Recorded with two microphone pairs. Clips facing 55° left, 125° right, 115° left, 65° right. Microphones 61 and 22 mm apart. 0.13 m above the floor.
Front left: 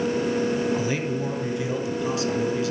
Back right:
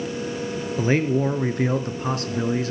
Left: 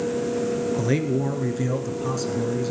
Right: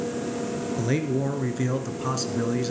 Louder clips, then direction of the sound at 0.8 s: Back right 5 dB, left 2 dB; 165° right.